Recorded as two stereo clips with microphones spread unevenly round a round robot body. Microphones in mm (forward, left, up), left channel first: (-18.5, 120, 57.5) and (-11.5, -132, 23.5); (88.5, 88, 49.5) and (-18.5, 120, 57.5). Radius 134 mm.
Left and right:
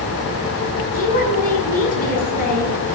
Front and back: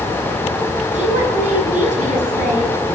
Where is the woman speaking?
150° left, 8.5 m.